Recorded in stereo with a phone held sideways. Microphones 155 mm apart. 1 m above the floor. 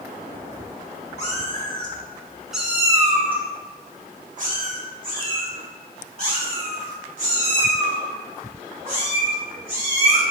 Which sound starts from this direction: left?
A cat meowing, at 1.2 s.